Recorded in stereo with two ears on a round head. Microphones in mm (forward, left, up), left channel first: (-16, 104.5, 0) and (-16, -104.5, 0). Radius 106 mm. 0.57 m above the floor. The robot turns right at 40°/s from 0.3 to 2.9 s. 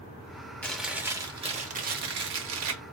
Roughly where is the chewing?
Behind.